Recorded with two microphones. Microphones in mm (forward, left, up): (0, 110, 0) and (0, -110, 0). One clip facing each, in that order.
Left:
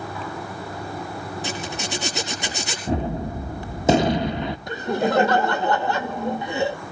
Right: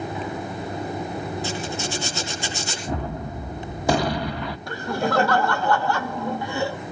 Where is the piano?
No piano in this recording.